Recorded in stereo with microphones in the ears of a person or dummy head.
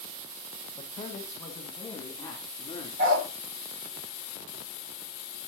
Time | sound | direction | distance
0.8 | a man speaking | 15° left (ahead or behind) | 1.6 m
3.0 | a dog barking | 55° right (ahead or behind) | 1.6 m